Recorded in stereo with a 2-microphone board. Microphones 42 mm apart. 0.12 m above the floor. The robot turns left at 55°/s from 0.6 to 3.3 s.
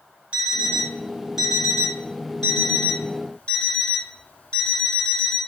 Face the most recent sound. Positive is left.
turn(degrees=105)